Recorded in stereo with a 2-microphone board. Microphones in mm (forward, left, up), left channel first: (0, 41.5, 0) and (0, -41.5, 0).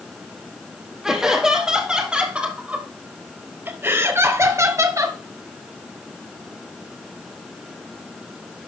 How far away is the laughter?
About 3 m.